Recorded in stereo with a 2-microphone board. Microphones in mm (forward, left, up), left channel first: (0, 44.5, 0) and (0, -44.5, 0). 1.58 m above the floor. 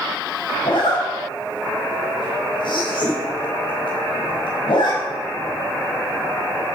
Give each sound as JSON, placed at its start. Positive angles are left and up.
{"t": 0.6, "sound": "a zipper", "side_deg": 65, "distance_m": 5.0}